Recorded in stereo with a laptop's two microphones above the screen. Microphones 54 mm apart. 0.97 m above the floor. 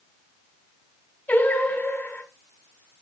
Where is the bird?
No bird in this recording.